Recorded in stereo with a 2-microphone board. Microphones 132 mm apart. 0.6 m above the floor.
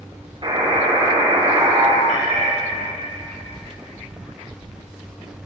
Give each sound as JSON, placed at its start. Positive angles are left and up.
{"t": 0.4, "sound": "a buzzer", "side_deg": -45, "distance_m": 4.0}
{"t": 2.1, "sound": "a cat meowing", "side_deg": -80, "distance_m": 3.5}